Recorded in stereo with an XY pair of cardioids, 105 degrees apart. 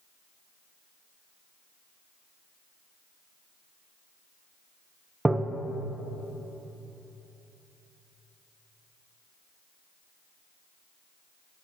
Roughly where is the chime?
No chime in this recording.